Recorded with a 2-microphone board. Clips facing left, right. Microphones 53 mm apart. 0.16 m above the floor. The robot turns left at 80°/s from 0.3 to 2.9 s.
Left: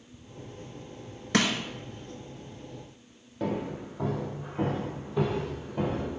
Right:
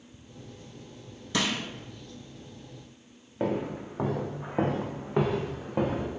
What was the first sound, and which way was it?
Crushing, 65° left (ahead or behind).